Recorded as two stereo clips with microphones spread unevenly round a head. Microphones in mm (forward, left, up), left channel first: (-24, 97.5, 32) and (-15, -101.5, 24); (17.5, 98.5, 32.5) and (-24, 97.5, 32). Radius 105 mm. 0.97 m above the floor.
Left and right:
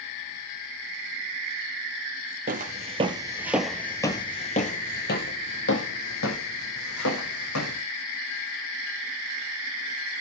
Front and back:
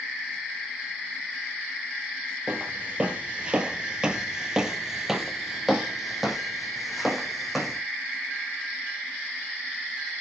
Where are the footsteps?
120° right, 1.3 m; by 7.8 s 95° left, 3 m.